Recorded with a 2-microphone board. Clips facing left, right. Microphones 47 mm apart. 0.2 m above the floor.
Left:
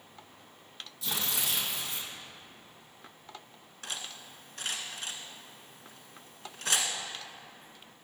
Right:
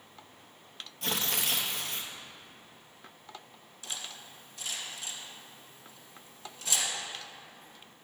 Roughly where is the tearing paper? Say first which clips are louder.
Right 2 dB; right.